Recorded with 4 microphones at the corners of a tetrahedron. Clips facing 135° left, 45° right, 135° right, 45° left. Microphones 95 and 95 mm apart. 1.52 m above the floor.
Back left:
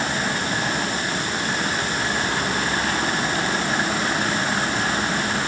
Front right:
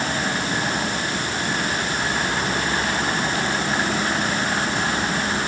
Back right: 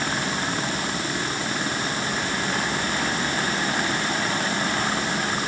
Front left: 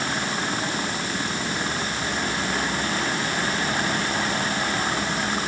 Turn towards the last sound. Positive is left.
No sound to turn to.